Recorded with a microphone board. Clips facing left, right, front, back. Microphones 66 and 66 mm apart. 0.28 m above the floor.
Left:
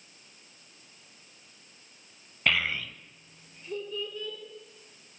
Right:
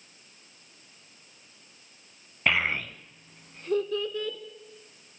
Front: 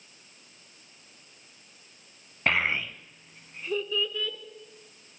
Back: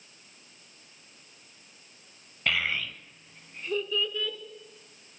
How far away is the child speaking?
About 0.5 m.